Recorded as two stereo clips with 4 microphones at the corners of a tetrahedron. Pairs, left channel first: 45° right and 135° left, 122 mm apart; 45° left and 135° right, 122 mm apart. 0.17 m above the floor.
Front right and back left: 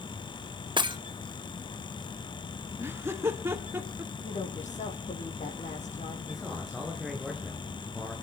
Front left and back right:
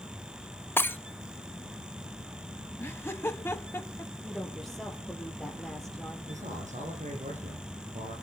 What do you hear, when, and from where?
0.8 s breaking glass: 110° left, 0.9 m
2.8 s laughter: 95° left, 1.1 m
4.2 s a woman speaking: 45° right, 5.5 m
6.3 s a man speaking: 135° right, 8 m